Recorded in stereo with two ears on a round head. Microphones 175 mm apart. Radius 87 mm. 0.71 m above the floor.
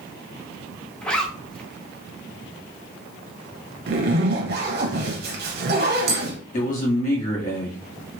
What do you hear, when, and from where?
1.0 s a zipper: 5° left (ahead or behind), 0.8 m
3.9 s a zipper: 55° right (ahead or behind), 0.8 m
6.5 s a man speaking: 40° left (ahead or behind), 1.8 m